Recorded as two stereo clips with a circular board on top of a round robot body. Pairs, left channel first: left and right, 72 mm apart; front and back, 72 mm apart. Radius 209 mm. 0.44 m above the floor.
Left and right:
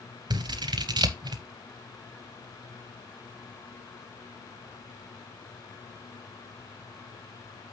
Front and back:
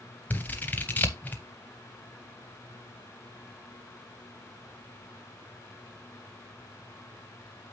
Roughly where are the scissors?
Right.